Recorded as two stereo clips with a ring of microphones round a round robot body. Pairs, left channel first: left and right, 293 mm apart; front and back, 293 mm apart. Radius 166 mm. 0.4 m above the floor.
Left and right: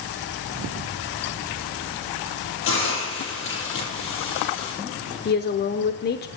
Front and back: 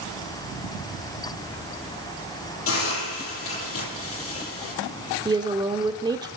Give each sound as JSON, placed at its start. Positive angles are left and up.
{"t": 2.7, "sound": "a hiss", "azimuth_deg": 45, "distance_m": 8.0}
{"t": 5.2, "sound": "a woman speaking", "azimuth_deg": 110, "distance_m": 0.9}